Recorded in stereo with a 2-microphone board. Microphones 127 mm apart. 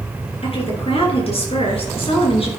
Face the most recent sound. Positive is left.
turn(degrees=50)  # may be behind; listen again after turning